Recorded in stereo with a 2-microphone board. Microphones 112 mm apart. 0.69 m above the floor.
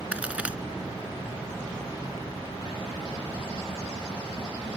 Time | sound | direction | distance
0.1 | a crack | 10° right (ahead or behind) | ?